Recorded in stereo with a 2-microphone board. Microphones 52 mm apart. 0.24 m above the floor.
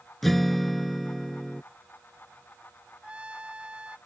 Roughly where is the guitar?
Centre.